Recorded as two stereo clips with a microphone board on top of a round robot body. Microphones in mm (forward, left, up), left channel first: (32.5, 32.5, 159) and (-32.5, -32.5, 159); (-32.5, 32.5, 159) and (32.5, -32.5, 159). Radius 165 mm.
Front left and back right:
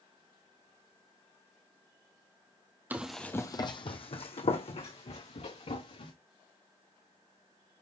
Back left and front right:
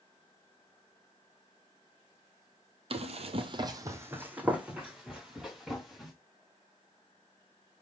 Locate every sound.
2.9 s running footsteps: 65° right, 1.0 m; by 6.1 s 45° left, 4 m